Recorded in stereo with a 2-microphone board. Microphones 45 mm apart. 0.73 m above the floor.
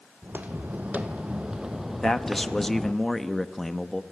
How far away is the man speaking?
About 1.0 m.